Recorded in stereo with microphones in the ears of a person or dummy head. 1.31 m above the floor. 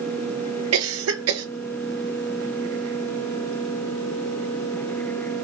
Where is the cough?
85° right, 0.9 m.